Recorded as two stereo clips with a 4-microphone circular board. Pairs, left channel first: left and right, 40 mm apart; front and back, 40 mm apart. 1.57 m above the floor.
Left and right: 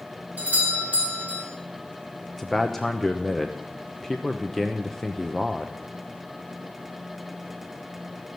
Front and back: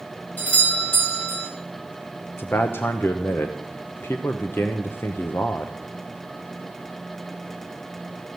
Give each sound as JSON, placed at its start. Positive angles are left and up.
{"t": 0.4, "sound": "a doorbell", "azimuth_deg": -35, "distance_m": 4.5}
{"t": 2.4, "sound": "a man speaking", "azimuth_deg": 10, "distance_m": 0.7}